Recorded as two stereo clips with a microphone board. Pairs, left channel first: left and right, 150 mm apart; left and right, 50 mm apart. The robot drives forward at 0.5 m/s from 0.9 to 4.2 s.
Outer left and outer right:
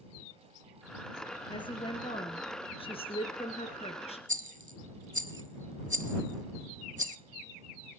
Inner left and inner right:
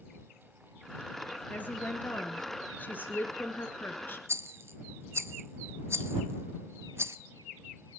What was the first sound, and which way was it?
A woman speaking, 30° left (ahead or behind).